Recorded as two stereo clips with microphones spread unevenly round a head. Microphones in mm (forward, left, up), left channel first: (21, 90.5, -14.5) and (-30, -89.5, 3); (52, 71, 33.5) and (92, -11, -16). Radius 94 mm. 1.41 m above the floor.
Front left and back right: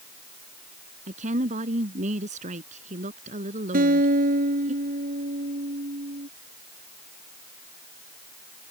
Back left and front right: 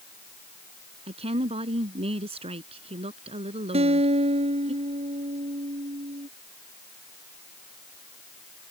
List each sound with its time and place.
1.1 s a woman speaking: 50° right
3.7 s a guitar: 60° right